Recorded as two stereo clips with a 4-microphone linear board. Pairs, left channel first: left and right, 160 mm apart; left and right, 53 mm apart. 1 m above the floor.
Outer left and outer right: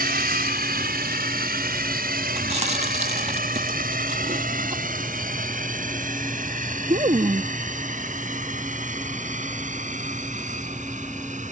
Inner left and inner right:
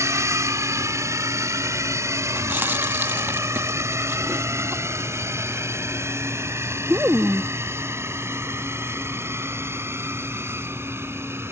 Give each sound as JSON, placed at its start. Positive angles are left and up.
{"t": 0.0, "sound": "a drone", "side_deg": -70}
{"t": 2.4, "sound": "chewing", "side_deg": -45}